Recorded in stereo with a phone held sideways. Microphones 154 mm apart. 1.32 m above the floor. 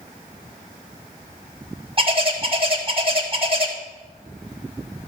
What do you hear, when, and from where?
2.0 s a bird: 35° right (ahead or behind), 1.8 m